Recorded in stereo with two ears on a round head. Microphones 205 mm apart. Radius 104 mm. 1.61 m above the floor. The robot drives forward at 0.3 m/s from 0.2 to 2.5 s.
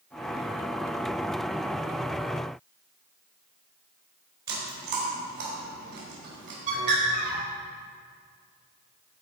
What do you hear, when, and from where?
4.5 s chewing: 50° right (ahead or behind), 4 m
6.7 s a bird: 35° right (ahead or behind), 3.5 m